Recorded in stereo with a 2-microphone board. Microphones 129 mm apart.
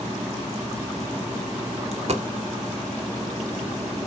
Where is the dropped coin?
55° right (ahead or behind), 0.8 m.